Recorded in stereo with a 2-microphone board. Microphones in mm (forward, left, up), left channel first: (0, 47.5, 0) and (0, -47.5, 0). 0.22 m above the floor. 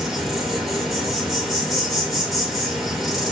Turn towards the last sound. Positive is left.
turn(degrees=0)  # may be behind; listen again after turning